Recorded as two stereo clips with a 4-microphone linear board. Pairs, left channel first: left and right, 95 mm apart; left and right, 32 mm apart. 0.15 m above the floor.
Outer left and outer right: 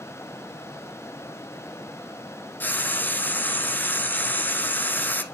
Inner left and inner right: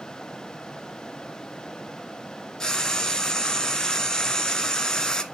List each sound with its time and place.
2.6 s frying: 20° left (ahead or behind), 0.9 m